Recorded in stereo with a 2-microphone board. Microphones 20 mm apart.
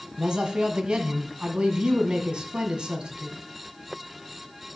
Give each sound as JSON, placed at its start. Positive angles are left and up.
{"t": 0.2, "sound": "a man speaking", "side_deg": -55, "distance_m": 1.6}